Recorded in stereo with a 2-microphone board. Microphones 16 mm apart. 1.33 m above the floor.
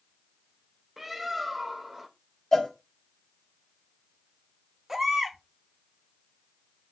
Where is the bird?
10° right (ahead or behind), 0.8 m.